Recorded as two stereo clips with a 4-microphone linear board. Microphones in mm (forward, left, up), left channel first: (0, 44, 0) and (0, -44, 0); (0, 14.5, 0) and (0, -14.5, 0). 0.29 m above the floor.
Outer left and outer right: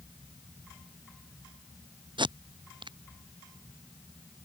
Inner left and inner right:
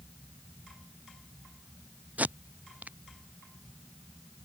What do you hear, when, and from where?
2.2 s tape being pulled: 60° right (ahead or behind)